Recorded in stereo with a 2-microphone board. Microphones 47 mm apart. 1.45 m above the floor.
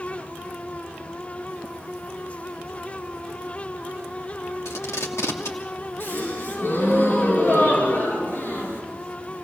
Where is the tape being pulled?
80° left, 2.5 m.